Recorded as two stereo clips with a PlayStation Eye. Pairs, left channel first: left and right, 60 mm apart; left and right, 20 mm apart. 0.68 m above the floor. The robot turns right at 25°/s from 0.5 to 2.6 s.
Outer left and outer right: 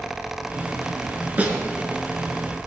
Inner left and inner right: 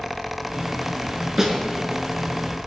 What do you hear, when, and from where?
1.4 s a snare drum: 30° right (ahead or behind), 4 m; by 1.6 s 25° right (ahead or behind), 4 m